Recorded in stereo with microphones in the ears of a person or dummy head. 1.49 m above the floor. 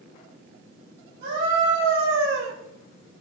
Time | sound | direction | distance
1.2 | a scream | 60° right (ahead or behind) | 2.5 m